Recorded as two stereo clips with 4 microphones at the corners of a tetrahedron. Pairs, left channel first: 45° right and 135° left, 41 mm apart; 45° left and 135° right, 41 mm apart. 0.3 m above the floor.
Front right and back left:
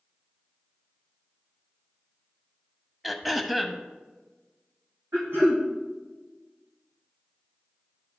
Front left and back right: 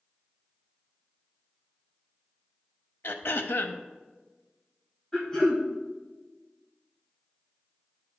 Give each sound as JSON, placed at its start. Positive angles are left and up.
{"t": 3.0, "sound": "throat clearing", "azimuth_deg": 45, "distance_m": 0.6}
{"t": 5.1, "sound": "throat clearing", "azimuth_deg": 115, "distance_m": 2.5}